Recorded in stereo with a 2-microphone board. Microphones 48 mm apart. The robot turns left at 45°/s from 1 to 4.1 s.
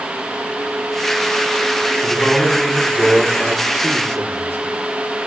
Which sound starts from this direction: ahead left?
A man speaking, at 2.0 s.